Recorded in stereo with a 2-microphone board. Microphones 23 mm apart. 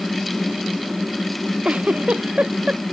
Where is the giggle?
65° right (ahead or behind).